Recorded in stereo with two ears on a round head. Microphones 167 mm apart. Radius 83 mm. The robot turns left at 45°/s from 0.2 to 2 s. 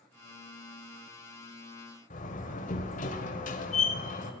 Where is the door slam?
40° left (ahead or behind), 1.4 m.